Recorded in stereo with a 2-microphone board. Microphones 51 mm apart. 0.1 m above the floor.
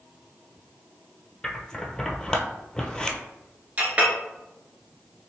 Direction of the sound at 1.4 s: 15° left (ahead or behind).